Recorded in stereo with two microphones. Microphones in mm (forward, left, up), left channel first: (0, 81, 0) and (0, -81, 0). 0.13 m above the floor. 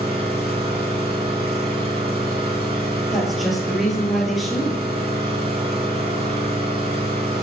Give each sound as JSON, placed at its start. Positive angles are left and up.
{"t": 0.0, "sound": "an engine running", "side_deg": -70, "distance_m": 3.5}
{"t": 3.1, "sound": "a woman speaking", "side_deg": 0, "distance_m": 2.5}